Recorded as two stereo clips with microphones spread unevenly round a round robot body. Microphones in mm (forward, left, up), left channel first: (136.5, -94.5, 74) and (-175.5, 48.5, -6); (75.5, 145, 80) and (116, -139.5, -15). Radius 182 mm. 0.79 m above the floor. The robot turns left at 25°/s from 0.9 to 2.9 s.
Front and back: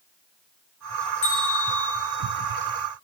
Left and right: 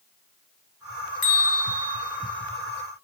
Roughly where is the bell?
Ahead left.